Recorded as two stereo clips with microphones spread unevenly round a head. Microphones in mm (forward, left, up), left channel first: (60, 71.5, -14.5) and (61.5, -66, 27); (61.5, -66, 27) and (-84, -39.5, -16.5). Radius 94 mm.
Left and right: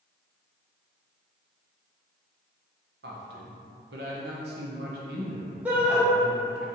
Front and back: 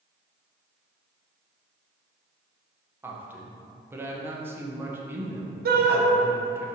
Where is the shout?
170° right, 1.1 m.